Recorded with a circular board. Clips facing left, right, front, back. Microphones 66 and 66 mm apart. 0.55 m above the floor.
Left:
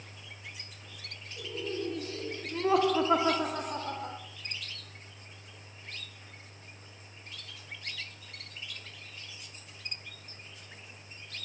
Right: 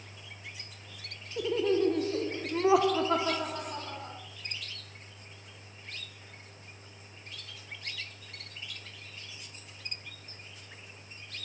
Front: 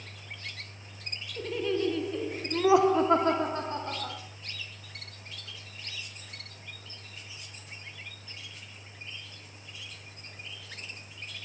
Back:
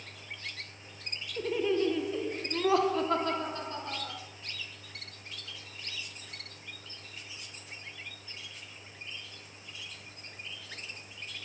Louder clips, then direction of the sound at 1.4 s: Right 10 dB, back 1 dB; 105° right.